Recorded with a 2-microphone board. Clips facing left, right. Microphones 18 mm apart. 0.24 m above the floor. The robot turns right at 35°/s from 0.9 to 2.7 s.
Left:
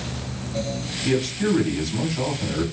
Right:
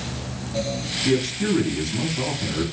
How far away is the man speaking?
About 1.8 m.